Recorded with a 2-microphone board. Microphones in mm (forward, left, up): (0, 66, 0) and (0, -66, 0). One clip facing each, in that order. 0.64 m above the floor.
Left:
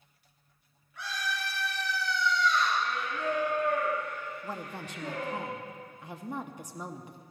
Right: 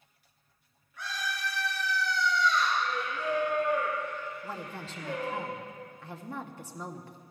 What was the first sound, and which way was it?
A scream, 70° left (ahead or behind).